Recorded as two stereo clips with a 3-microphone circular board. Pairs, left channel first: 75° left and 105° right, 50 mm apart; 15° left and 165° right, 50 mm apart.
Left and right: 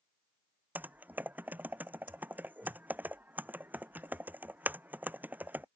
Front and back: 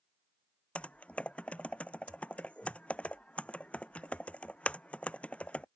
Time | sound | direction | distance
0.8 | typing on a keyboard | 50° right | ?